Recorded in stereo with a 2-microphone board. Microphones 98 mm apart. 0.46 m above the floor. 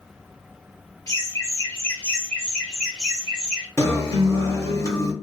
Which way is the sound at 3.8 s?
30° left (ahead or behind).